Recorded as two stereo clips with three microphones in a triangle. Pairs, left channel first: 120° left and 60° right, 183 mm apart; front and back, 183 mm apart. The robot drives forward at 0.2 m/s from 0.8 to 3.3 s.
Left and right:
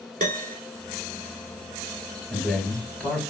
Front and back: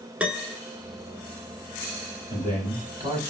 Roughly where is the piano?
Right.